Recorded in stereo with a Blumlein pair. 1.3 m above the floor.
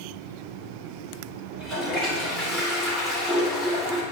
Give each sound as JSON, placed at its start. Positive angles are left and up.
{"t": 1.5, "sound": "a toilet flushing", "azimuth_deg": -20, "distance_m": 3.0}